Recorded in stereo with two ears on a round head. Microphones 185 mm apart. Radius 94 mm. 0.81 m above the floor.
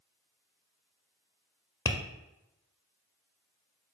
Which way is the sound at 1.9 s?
20° left (ahead or behind).